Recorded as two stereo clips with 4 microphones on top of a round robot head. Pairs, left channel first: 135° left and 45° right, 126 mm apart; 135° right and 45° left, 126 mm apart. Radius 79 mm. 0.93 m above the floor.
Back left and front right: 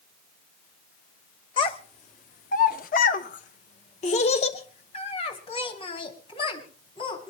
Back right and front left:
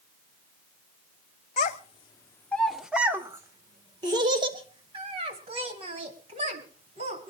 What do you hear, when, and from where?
1.6 s a child speaking: 170° right, 1.3 m; by 7.3 s 85° left, 5.5 m